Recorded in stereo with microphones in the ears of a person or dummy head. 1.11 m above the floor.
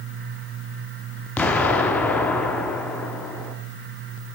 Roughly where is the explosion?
Centre.